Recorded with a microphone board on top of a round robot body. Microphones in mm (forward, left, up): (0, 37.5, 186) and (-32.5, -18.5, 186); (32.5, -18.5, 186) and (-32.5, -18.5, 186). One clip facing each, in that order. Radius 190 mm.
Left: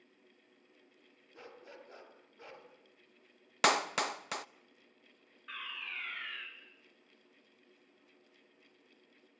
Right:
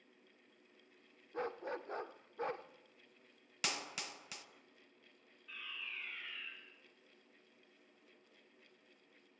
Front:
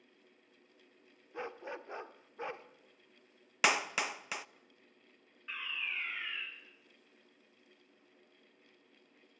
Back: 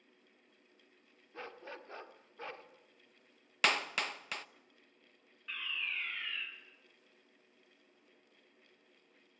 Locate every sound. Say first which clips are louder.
1.3 s a dog barking: right 11 dB, front 5 dB; 75° right, 0.9 m
3.6 s a clap: left 14 dB, front 2 dB; 80° left, 0.9 m
5.5 s a fire alarm: left 5 dB, even; 75° left, 5 m